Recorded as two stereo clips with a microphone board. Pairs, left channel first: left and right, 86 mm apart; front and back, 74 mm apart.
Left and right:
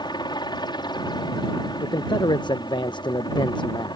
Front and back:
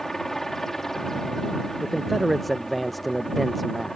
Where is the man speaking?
90° left.